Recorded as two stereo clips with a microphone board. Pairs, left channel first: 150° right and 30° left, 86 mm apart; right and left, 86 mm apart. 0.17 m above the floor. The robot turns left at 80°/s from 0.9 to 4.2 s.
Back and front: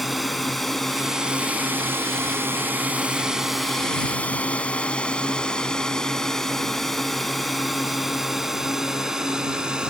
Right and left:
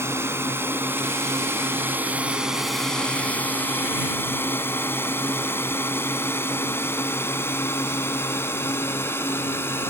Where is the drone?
120° left; by 9.9 s 45° right.